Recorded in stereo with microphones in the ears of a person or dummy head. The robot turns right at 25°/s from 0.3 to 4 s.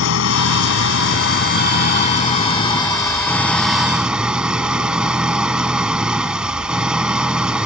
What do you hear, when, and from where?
0.0 s an engine running: 95° left; by 7.7 s 170° right